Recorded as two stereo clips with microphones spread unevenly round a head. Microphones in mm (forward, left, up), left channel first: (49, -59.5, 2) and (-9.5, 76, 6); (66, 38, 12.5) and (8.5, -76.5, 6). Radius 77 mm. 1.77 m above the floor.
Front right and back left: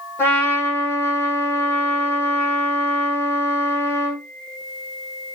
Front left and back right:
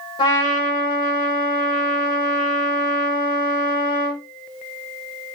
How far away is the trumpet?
About 2.5 m.